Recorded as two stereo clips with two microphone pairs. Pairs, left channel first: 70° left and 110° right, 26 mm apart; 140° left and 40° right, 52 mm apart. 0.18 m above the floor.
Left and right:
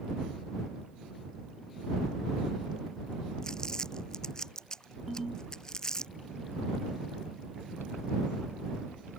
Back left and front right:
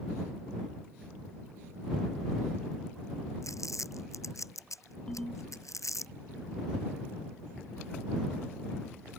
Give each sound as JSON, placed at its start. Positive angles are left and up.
{"t": 3.4, "sound": "crumpling", "azimuth_deg": 135}
{"t": 5.1, "sound": "a ringtone", "azimuth_deg": -175}